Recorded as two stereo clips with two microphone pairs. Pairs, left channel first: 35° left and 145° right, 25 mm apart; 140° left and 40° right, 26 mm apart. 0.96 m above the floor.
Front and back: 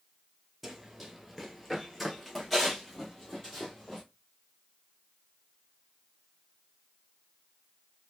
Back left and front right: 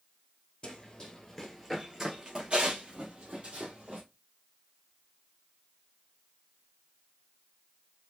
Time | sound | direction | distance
0.6 | running footsteps | 140° left | 1.0 m